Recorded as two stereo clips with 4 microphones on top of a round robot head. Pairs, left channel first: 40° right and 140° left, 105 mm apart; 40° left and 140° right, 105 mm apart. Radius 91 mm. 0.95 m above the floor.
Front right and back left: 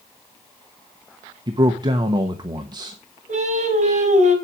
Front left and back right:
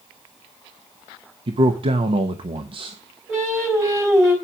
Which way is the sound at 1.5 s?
170° right.